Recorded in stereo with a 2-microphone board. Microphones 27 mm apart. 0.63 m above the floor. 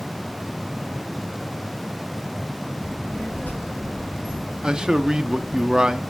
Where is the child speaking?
80° left, 6 m.